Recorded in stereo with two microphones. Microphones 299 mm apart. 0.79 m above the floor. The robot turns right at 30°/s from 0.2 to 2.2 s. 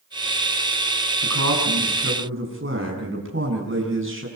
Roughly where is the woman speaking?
Right.